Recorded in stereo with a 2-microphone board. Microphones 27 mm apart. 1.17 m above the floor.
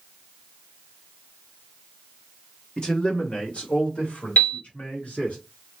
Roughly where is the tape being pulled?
I don't hear tape being pulled.